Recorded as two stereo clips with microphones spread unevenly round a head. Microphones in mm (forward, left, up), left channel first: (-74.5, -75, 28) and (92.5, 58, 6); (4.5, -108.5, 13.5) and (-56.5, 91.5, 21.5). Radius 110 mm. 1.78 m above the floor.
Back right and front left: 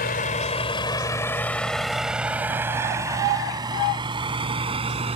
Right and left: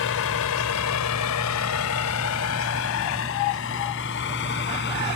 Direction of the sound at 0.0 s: 95° right.